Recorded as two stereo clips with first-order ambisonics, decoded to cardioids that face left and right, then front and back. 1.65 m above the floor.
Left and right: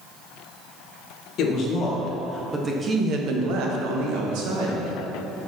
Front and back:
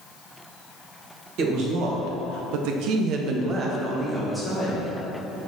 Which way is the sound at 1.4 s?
145° left.